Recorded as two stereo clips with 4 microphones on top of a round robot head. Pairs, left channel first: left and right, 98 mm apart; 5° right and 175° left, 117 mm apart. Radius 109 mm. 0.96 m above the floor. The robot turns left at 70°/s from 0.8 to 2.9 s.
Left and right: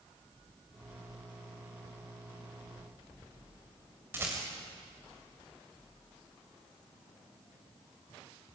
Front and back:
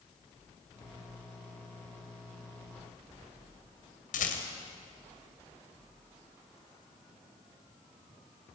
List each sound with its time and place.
4.1 s a rattle: 15° right, 2.5 m